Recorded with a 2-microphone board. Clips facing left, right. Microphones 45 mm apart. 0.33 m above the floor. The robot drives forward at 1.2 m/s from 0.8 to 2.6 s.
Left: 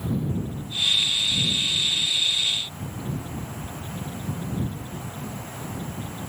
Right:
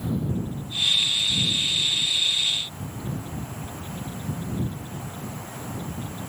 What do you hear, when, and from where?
Only background noise.